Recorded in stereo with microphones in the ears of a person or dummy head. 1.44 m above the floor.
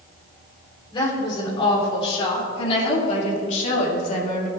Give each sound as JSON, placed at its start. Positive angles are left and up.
{"t": 0.9, "sound": "a woman speaking", "side_deg": 25, "distance_m": 4.0}